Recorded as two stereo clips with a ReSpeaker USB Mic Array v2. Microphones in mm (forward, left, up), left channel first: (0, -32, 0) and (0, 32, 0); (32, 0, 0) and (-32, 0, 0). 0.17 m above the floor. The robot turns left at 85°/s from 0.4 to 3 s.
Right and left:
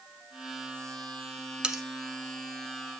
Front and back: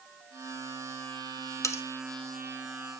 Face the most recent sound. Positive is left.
turn(degrees=-100)